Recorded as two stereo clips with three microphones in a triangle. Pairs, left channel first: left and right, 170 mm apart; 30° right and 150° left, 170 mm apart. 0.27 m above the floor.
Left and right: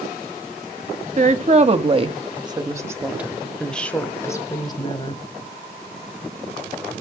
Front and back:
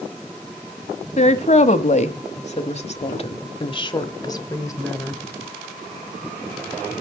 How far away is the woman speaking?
About 1.7 m.